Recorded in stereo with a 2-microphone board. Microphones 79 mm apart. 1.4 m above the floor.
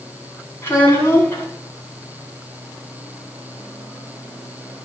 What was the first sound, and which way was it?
A child speaking, 30° left (ahead or behind).